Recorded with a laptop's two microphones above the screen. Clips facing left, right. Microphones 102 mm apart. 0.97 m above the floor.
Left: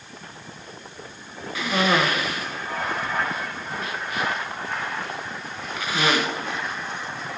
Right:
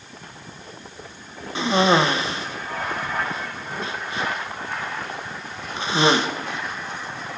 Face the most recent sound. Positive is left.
turn(degrees=-25)  # may be behind; listen again after turning